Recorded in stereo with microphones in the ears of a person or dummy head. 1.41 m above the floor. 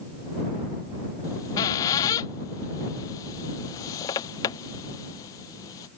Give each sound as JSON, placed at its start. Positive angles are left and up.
{"t": 1.2, "sound": "a squeak", "side_deg": 20}